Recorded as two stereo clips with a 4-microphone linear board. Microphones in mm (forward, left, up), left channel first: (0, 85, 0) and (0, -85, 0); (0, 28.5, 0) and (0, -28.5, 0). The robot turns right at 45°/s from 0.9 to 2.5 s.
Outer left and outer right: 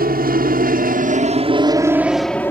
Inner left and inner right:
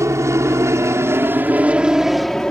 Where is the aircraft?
60° right (ahead or behind); by 2.5 s 15° left (ahead or behind).